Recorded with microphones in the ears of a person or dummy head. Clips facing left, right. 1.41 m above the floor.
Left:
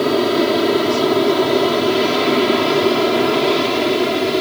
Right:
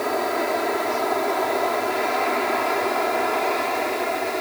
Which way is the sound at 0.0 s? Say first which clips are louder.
Left 9 dB; 55° left (ahead or behind).